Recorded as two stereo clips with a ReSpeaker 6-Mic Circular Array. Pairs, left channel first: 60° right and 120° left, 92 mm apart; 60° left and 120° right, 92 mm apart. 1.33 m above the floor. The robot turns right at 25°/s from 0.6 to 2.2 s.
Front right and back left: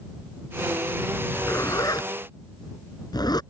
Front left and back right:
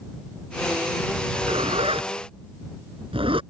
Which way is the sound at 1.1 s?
130° right.